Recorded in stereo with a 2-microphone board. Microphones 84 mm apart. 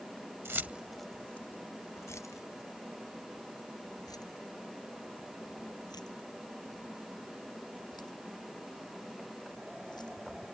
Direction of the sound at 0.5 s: 30° right (ahead or behind).